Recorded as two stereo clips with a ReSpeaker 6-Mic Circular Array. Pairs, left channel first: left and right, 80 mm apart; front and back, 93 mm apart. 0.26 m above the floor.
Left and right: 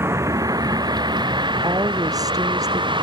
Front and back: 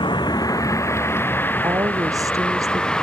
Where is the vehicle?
30° right; by 3.0 s 80° right.